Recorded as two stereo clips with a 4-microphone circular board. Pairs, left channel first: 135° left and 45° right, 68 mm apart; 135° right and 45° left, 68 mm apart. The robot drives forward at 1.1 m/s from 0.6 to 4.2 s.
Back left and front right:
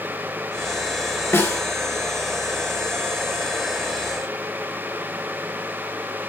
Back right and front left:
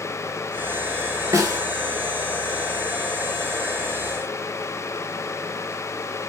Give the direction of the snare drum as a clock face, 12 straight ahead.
9 o'clock.